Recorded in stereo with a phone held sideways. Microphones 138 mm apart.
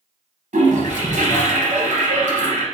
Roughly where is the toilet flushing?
Right.